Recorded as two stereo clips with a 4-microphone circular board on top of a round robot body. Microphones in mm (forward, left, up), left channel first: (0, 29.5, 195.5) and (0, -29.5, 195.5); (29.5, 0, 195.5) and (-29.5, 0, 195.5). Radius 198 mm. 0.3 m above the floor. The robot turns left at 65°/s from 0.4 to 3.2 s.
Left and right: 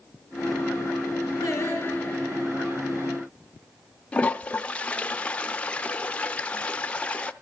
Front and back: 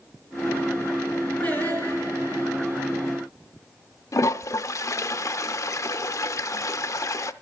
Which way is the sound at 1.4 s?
70° left.